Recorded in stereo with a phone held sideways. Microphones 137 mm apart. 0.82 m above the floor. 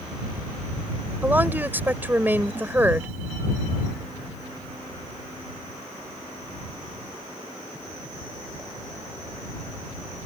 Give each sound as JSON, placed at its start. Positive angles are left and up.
{"t": 1.2, "sound": "a woman speaking", "side_deg": -15}